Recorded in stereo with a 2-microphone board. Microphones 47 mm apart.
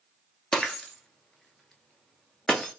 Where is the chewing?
I don't hear chewing.